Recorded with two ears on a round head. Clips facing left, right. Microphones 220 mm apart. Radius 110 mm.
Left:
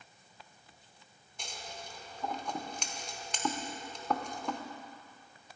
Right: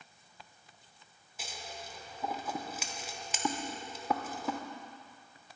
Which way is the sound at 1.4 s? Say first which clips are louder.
Even; 5° right (ahead or behind).